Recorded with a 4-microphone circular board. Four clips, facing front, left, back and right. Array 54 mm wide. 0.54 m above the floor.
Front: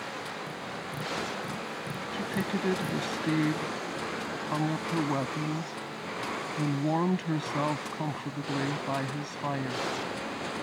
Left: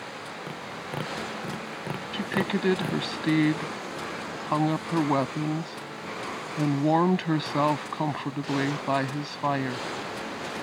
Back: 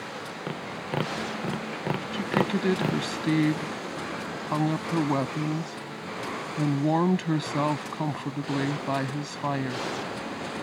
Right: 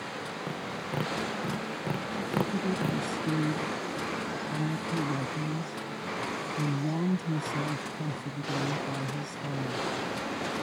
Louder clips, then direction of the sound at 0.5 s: Even, back 4 dB; 175° left.